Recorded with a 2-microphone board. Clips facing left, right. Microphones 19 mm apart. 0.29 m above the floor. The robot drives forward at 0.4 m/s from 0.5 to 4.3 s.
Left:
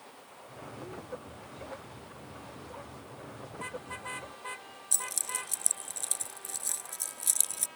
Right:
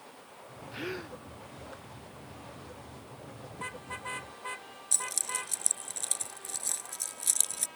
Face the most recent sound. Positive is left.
turn(degrees=-10)  # may be behind; listen again after turning